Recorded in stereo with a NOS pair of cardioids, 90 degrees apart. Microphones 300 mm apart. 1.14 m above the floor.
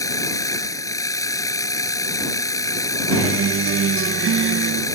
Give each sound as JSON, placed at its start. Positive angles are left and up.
{"t": 0.0, "sound": "a machine running", "azimuth_deg": 10}
{"t": 3.1, "sound": "a guitar", "azimuth_deg": -45}